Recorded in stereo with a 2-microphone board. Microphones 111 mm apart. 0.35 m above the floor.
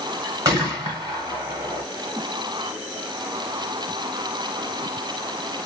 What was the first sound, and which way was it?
A gunshot, 35° right (ahead or behind).